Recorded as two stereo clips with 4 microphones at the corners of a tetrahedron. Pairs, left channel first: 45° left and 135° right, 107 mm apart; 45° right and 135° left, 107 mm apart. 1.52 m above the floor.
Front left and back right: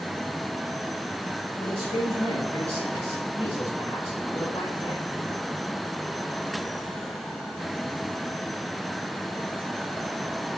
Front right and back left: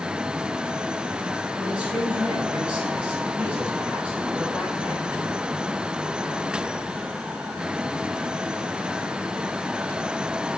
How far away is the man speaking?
About 6 m.